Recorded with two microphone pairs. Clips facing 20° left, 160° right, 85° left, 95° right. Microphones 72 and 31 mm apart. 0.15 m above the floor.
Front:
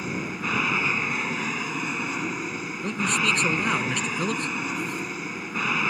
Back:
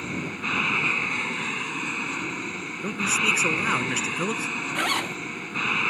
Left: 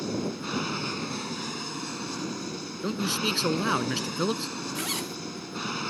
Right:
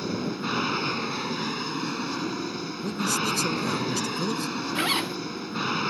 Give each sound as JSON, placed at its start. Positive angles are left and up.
{"t": 0.0, "sound": "an aircraft", "azimuth_deg": -60}
{"t": 2.8, "sound": "a man speaking", "azimuth_deg": 120}
{"t": 4.8, "sound": "a zipper", "azimuth_deg": -155}